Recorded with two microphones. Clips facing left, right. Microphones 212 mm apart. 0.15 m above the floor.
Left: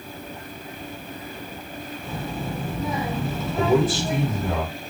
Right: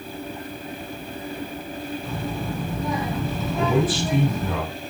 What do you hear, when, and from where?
2.0 s a child speaking: centre (ahead or behind), 1.3 m
3.6 s a man speaking: 40° left (ahead or behind), 4 m